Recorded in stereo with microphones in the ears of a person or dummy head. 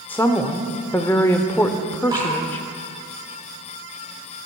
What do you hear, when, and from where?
0.1 s a woman speaking: 10° left (ahead or behind), 0.6 m
2.1 s dripping: 20° right (ahead or behind), 3 m